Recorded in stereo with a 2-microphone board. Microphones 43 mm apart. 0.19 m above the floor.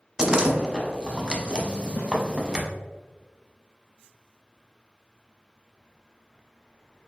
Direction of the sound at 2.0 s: 60° left (ahead or behind).